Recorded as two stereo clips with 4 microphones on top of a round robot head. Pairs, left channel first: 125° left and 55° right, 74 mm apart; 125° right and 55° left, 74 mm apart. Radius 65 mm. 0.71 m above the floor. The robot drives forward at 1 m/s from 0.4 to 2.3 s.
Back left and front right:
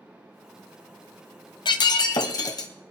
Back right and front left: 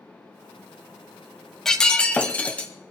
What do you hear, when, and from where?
1.6 s breaking glass: 150° left, 1.0 m; by 2.7 s 160° left, 1.6 m